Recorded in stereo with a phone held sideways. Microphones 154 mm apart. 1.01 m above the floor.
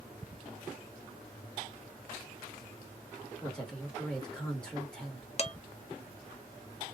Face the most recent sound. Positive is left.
turn(degrees=45)  # may be behind; listen again after turning